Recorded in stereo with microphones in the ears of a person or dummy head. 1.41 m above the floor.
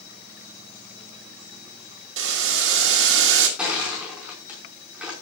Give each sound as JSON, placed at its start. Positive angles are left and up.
{"t": 2.2, "sound": "boiling", "side_deg": -75, "distance_m": 2.0}
{"t": 3.6, "sound": "crushing", "side_deg": 0, "distance_m": 5.0}